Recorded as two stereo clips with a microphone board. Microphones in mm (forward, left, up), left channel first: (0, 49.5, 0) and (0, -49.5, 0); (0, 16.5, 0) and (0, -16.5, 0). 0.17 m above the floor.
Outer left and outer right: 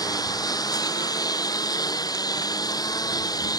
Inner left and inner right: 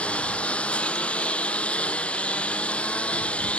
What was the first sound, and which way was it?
A lawn mower, 40° left (ahead or behind).